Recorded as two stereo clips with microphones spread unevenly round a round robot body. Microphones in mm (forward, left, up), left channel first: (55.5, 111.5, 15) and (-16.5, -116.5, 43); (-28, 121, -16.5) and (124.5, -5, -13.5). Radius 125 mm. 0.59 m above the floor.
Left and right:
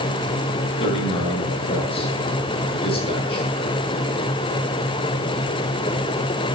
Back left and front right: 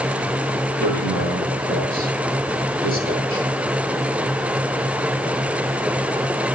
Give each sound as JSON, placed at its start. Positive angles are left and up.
{"t": 0.8, "sound": "a man speaking", "azimuth_deg": 5, "distance_m": 8.0}